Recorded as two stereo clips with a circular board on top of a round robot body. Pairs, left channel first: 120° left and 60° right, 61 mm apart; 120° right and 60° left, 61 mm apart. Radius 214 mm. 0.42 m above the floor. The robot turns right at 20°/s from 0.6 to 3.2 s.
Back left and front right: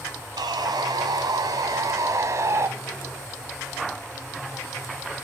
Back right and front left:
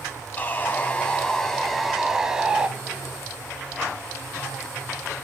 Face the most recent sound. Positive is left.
turn(degrees=0)